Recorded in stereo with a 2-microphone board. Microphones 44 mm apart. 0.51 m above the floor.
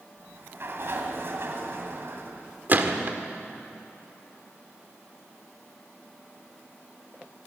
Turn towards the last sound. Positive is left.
turn(degrees=-45)  # may be behind; listen again after turning